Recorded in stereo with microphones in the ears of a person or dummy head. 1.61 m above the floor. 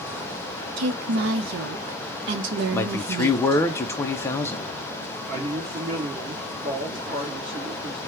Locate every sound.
0.8 s a woman speaking: 70° right (ahead or behind), 0.8 m
2.7 s a man speaking: 15° left (ahead or behind), 0.6 m
5.3 s a man speaking: 40° right (ahead or behind), 1.9 m